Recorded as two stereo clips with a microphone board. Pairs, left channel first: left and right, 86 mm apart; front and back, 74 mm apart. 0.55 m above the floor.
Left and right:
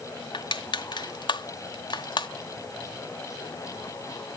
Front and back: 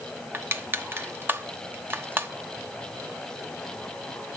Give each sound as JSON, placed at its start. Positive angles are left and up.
{"t": 0.3, "sound": "crushing", "azimuth_deg": 120, "distance_m": 1.0}